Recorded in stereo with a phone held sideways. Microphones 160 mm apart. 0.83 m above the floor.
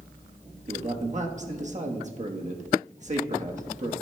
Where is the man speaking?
50° right (ahead or behind), 1.1 m.